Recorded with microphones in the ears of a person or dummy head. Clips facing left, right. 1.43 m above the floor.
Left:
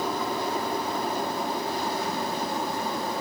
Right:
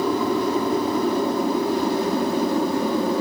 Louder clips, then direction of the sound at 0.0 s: Right 8 dB; 70° right (ahead or behind).